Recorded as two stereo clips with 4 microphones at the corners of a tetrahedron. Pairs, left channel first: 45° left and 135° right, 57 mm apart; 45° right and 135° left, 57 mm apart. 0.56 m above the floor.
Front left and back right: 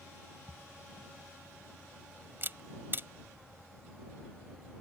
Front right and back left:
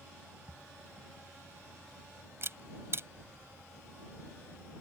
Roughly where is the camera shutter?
Behind.